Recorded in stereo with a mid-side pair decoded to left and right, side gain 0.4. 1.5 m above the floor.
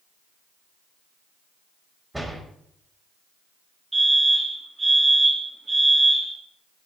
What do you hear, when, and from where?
2.1 s a door slam: 15° right, 5.5 m
3.9 s a fire alarm: 35° right, 5 m